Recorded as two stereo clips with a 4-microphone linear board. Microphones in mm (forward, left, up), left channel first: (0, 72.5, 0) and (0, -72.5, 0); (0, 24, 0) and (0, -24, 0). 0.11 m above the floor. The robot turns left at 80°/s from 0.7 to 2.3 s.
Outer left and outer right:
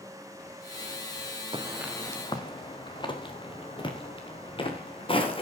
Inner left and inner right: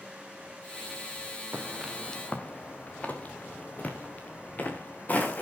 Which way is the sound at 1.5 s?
35° right (ahead or behind).